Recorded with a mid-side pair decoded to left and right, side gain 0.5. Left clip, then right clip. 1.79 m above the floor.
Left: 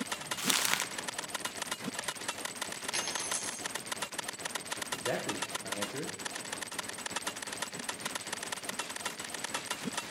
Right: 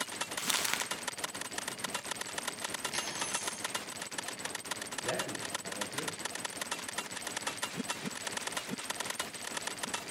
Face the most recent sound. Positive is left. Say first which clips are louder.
# left 2 dB
turn(degrees=25)